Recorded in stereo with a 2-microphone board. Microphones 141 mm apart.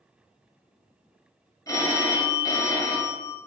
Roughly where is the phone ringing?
Left.